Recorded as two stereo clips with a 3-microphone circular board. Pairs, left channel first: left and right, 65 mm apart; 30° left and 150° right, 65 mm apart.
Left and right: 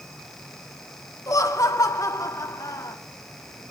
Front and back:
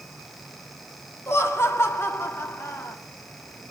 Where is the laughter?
75° left, 2.0 m.